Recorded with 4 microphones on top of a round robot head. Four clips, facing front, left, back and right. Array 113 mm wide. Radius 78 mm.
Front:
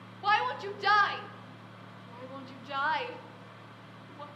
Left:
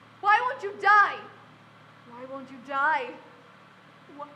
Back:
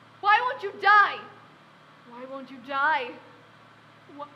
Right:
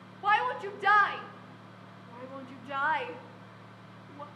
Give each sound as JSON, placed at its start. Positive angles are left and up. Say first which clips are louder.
{"t": 0.2, "sound": "a shout", "louder": "left 4 dB, back 6 dB", "azimuth_deg": 145, "distance_m": 0.5}